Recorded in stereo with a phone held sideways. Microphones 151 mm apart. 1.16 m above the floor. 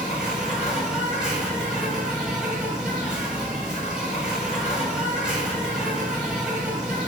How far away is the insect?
About 1.1 m.